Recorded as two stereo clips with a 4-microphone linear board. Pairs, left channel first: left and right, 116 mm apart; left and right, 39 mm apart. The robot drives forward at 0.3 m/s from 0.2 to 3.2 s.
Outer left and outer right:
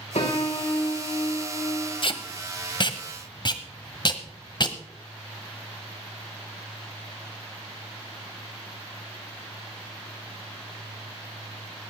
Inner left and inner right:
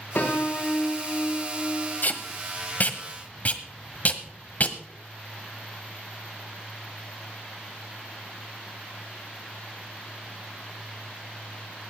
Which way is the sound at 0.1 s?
65° left (ahead or behind).